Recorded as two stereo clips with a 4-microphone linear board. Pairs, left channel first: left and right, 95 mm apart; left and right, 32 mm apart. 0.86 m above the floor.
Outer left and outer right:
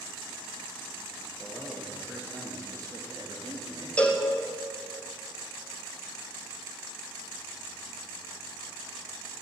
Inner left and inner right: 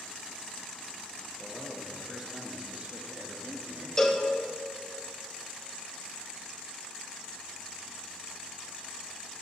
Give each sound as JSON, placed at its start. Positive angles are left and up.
{"t": 1.4, "sound": "a man speaking", "side_deg": 5, "distance_m": 0.9}
{"t": 4.0, "sound": "a cowbell", "side_deg": 15, "distance_m": 0.6}